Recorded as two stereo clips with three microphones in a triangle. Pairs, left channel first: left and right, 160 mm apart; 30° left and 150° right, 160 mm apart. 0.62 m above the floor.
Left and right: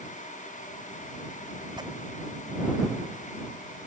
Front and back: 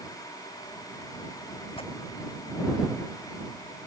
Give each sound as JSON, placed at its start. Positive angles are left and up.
{"t": 1.8, "sound": "tearing paper", "azimuth_deg": -25}